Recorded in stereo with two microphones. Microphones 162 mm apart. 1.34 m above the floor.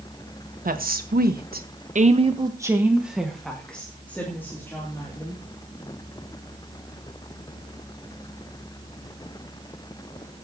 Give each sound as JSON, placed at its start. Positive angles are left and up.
{"t": 0.7, "sound": "a woman speaking", "side_deg": -60, "distance_m": 1.7}